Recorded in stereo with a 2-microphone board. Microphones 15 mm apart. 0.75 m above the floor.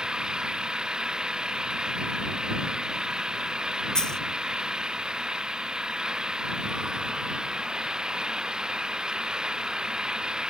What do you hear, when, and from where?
0.0 s an engine running: 80° right
4.0 s a dropped coin: 55° left (ahead or behind)